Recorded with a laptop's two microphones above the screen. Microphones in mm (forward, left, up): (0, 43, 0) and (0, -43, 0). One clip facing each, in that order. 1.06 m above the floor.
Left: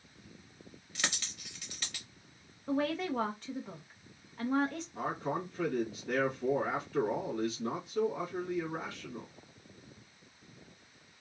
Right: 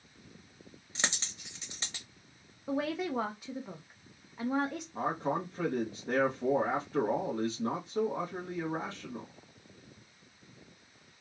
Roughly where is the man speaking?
Right.